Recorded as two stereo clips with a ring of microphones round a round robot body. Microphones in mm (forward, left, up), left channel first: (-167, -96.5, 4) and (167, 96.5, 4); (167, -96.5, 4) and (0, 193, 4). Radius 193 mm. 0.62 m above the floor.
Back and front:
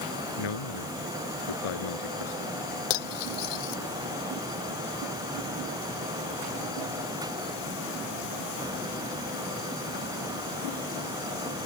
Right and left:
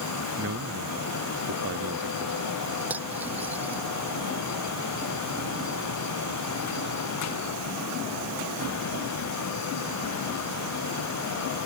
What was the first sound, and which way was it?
A man speaking, straight behind.